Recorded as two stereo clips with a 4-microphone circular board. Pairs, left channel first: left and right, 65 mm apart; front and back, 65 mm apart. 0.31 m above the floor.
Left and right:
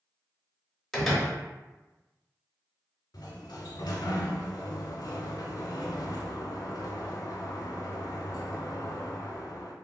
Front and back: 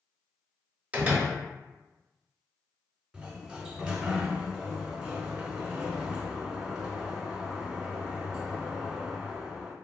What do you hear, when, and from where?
0.9 s a door slam: 165° left, 0.7 m
3.1 s a sliding door: 100° left, 0.5 m